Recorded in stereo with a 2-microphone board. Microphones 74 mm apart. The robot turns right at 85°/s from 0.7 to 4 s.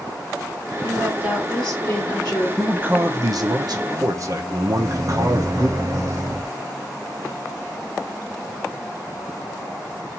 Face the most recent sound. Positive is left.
turn(degrees=-45)  # may be behind; listen again after turning